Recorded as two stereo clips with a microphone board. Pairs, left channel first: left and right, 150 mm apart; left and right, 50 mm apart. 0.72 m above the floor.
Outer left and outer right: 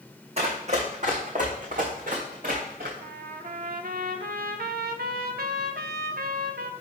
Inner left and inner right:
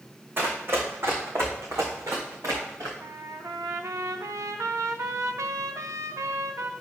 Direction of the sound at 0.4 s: 45° right (ahead or behind).